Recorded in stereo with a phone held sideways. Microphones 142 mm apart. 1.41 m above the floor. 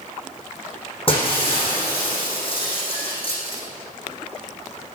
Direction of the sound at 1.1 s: 40° left (ahead or behind).